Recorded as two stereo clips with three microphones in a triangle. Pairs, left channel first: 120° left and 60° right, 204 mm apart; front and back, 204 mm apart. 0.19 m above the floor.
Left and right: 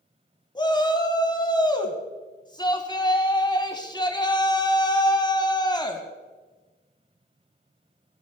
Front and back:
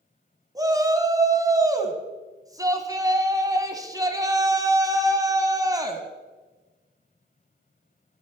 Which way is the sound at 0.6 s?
140° left.